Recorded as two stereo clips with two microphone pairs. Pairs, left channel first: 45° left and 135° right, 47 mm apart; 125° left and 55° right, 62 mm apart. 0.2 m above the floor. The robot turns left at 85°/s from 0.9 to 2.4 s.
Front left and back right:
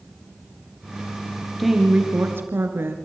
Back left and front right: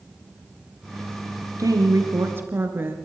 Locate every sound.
1.6 s a woman speaking: 40° right, 3 m; by 3.0 s 110° right, 3 m